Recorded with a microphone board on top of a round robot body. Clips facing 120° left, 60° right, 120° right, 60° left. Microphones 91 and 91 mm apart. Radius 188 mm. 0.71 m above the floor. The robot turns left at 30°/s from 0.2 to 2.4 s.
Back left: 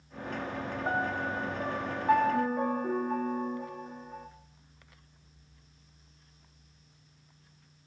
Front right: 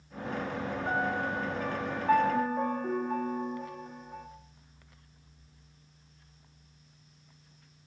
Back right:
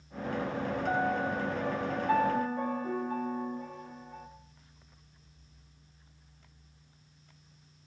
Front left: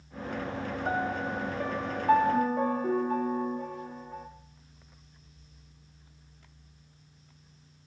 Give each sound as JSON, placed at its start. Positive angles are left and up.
{"t": 0.8, "sound": "a piano", "azimuth_deg": 75, "distance_m": 2.0}